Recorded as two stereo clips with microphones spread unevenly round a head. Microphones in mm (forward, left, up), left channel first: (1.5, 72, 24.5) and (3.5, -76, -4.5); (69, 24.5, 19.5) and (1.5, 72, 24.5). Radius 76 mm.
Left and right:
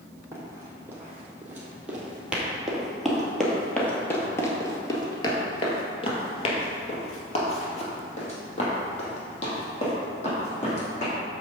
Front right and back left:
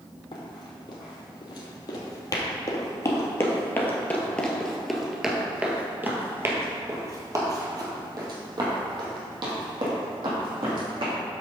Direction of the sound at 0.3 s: 10° right.